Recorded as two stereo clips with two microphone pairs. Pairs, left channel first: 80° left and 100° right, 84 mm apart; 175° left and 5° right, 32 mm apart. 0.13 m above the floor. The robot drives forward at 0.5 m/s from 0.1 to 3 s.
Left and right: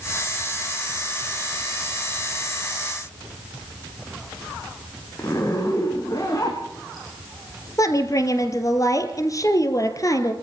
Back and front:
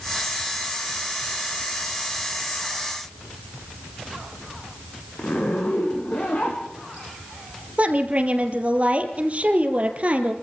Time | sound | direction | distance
5.2 | a zipper | 130° left | 6 m
7.8 | a woman speaking | 35° left | 3 m